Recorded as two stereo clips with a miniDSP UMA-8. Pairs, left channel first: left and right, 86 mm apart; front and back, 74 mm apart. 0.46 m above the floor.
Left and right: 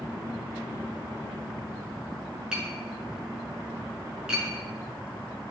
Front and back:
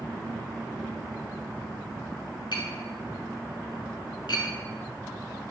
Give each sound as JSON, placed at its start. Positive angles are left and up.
{"t": 2.5, "sound": "tapping", "azimuth_deg": -10, "distance_m": 7.5}